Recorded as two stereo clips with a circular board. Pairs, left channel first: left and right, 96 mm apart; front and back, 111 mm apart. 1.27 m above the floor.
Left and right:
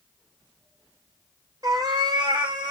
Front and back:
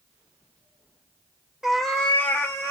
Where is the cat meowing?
100° right, 0.7 m; by 2.7 s 60° right, 1.1 m.